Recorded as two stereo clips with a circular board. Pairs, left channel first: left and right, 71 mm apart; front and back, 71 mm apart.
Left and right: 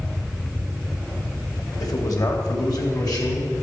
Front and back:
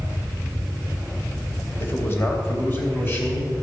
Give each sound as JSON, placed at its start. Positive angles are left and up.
{"t": 1.8, "sound": "a man speaking", "azimuth_deg": 60, "distance_m": 2.5}